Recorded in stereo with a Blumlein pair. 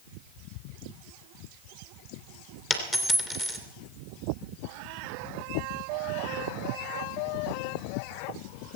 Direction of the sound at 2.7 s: 15° left.